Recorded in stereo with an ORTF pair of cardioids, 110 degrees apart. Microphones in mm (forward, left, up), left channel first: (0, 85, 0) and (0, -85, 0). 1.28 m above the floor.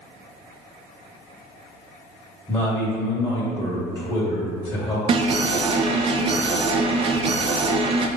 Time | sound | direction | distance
2.5 | a man speaking | 15° left | 1.5 m
5.1 | an alarm | 35° right | 0.5 m